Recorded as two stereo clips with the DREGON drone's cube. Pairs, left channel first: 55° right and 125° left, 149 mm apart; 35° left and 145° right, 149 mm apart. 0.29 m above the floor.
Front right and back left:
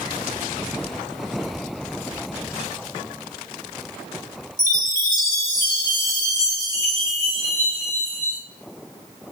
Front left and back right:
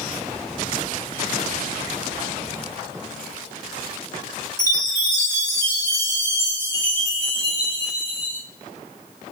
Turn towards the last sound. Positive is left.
turn(degrees=140)